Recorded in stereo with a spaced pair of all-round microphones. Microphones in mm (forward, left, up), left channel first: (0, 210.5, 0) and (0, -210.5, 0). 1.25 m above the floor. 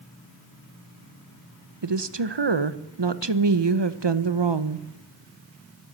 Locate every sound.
1.8 s a woman speaking: 75° right (ahead or behind), 0.8 m